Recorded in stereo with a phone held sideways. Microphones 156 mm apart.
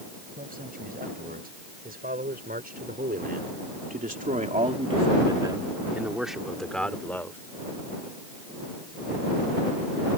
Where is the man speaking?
70° right (ahead or behind); by 7.4 s 15° left (ahead or behind).